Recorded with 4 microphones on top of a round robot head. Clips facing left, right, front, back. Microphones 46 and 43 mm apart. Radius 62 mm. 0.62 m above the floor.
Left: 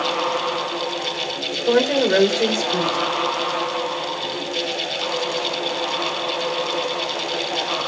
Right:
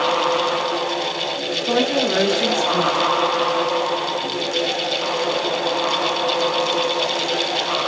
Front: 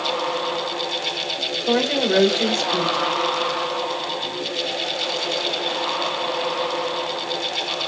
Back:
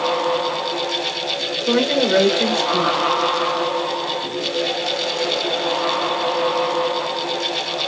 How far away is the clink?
I don't hear a clink.